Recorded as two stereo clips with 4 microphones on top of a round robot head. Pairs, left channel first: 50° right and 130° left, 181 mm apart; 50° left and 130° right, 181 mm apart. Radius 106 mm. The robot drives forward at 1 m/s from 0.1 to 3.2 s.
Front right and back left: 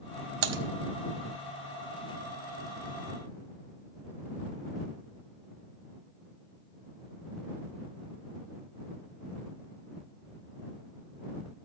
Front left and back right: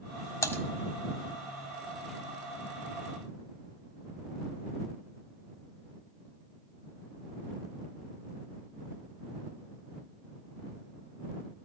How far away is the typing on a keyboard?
About 1.5 m.